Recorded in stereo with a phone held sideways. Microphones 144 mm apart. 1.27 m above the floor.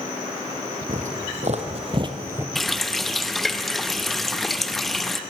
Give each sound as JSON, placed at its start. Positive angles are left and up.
{"t": 0.9, "sound": "footsteps", "side_deg": -60, "distance_m": 3.0}
{"t": 2.5, "sound": "a running tap", "side_deg": 0, "distance_m": 0.7}